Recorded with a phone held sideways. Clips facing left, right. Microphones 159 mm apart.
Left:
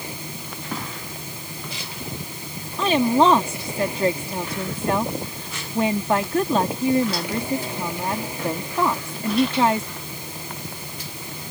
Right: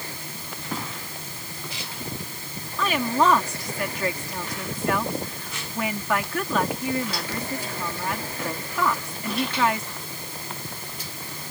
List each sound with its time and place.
0.0 s a machine running: 15° left (ahead or behind)
2.8 s a woman speaking: 30° left (ahead or behind)